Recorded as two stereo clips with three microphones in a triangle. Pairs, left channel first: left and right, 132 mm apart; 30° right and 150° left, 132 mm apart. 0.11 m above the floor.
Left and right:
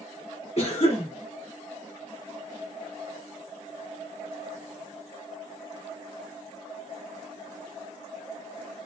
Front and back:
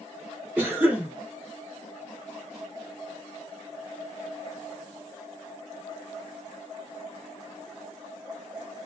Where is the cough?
80° left, 1.7 m.